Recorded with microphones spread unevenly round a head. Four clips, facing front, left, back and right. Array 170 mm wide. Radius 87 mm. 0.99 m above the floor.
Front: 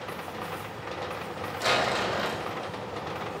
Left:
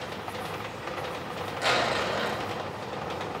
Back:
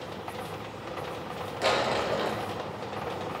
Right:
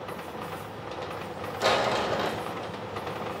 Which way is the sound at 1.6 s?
120° right.